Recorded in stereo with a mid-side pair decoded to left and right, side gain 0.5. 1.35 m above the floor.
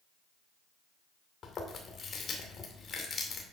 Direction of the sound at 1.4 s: 40° left.